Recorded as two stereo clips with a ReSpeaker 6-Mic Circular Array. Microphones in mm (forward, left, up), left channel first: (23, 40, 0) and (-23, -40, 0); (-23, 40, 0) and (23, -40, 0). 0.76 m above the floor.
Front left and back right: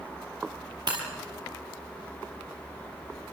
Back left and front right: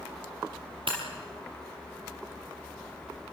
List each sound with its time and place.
0.9 s breaking glass: 85° right, 6 m